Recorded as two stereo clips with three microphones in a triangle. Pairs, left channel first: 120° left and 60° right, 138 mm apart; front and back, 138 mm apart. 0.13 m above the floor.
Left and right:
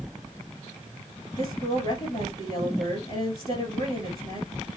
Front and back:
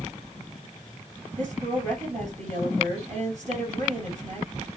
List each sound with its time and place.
1.4 s a woman speaking: 175° left, 3 m